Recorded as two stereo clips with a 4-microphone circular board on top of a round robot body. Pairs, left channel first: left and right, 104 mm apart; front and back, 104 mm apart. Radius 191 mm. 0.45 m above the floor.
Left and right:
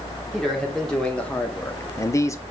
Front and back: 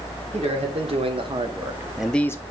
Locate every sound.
0.3 s a man speaking: 175° left, 1.9 m; by 2.4 s 45° left, 0.8 m